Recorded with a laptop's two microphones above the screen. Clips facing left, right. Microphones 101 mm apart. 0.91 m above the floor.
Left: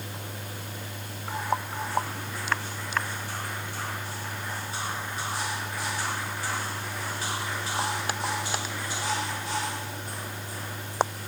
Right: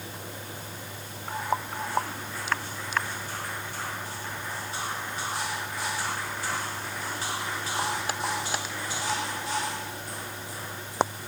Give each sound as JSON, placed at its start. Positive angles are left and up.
{"t": 0.0, "sound": "a fan", "side_deg": 80}